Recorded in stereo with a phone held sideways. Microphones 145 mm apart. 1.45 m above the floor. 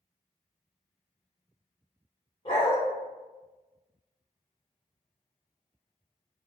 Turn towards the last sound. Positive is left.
turn(degrees=35)  # may be behind; listen again after turning